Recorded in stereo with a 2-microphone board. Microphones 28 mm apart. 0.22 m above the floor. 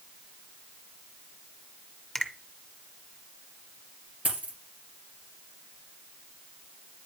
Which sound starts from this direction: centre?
A finger snap, at 2.1 s.